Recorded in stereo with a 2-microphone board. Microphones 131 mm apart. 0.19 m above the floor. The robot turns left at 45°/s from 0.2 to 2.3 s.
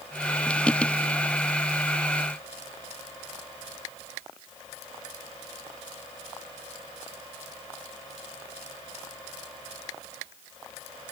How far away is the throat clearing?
I don't hear throat clearing.